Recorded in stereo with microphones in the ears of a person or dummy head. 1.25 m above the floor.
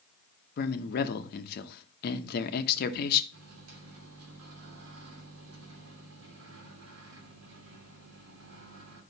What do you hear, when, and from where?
0.6 s a man speaking: 60° left (ahead or behind), 0.9 m
3.3 s a microwave: 80° right, 2.5 m